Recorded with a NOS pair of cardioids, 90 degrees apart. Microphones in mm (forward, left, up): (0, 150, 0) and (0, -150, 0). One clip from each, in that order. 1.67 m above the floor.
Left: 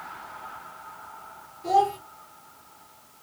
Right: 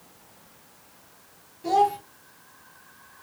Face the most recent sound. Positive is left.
turn(degrees=-15)